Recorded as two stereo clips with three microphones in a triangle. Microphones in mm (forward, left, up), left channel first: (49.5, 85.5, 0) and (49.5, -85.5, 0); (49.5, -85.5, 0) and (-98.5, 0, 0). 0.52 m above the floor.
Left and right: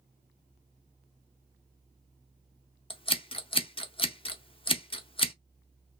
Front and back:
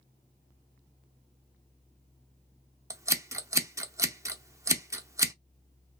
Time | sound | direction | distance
2.9 | scissors | 95° left | 0.6 m